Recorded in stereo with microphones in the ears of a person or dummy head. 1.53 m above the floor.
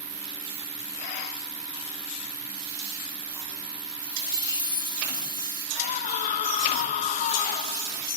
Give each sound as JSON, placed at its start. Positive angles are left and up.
{"t": 0.0, "sound": "an insect", "side_deg": -35}
{"t": 4.0, "sound": "a chime", "side_deg": -20}
{"t": 5.8, "sound": "a scream", "side_deg": 40}